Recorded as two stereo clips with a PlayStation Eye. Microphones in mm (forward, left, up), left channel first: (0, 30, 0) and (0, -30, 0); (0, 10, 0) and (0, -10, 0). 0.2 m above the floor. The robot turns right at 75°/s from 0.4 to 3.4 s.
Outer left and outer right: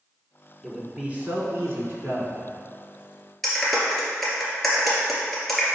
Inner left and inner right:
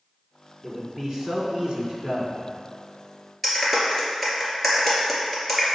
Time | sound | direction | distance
0.6 | a man speaking | 175° left | 1.7 m
3.4 | a clap | 5° left (ahead or behind) | 2.5 m